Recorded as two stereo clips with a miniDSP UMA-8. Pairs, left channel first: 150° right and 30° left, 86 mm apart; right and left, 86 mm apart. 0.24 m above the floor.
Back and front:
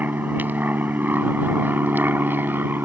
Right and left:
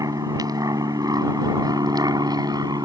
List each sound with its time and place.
0.0 s an aircraft: 90° left